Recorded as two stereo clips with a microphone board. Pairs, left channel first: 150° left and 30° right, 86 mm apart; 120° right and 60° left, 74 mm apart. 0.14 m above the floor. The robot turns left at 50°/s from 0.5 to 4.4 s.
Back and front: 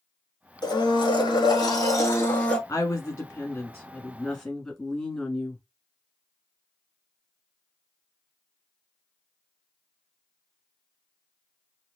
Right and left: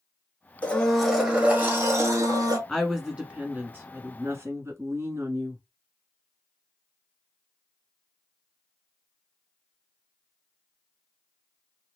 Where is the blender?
170° left, 0.8 m; by 2.6 s 75° left, 0.8 m.